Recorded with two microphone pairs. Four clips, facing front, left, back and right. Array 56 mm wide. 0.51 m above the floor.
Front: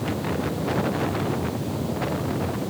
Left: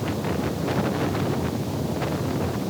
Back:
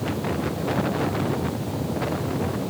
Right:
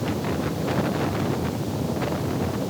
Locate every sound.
Only background noise.